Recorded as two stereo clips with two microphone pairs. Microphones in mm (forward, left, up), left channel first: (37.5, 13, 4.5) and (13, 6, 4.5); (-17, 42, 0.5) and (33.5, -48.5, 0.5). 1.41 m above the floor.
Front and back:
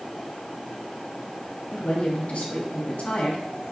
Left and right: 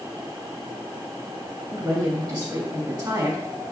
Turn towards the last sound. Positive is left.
turn(degrees=-10)